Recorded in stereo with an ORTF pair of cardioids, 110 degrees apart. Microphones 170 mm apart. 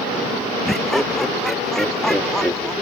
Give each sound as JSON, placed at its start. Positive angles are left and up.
{"t": 0.7, "sound": "laughter", "azimuth_deg": 0}